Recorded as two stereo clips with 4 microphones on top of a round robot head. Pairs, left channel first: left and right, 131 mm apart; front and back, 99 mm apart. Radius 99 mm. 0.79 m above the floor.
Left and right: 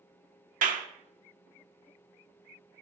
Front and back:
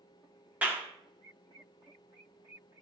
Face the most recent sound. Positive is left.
turn(degrees=-100)